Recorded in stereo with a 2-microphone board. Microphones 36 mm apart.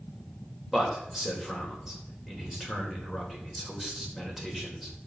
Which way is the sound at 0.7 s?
10° right (ahead or behind).